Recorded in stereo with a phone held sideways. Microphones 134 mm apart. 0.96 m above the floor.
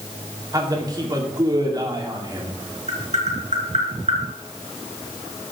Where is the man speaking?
30° right (ahead or behind), 2.5 m.